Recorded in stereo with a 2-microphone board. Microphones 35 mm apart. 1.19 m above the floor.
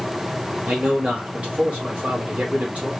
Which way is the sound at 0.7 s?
40° right (ahead or behind).